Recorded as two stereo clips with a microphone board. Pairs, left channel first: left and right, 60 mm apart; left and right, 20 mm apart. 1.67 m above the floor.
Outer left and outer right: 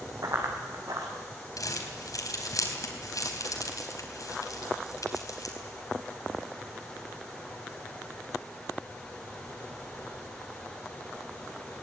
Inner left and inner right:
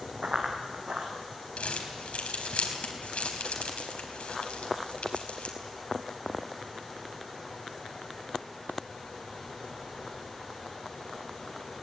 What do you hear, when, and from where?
0.2 s running footsteps: 65° right (ahead or behind), 4.5 m
1.6 s crumpling: 70° left (ahead or behind), 3.5 m